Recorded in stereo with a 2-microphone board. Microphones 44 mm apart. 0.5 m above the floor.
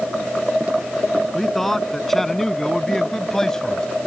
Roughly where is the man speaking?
Centre.